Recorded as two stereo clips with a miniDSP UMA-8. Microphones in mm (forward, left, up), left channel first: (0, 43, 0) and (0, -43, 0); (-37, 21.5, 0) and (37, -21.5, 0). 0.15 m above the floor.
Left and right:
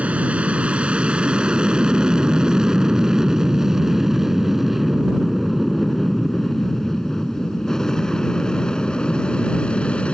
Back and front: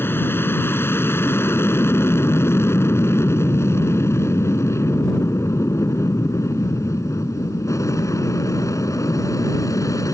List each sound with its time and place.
0.0 s an aircraft: 160° right; by 10.2 s 160° left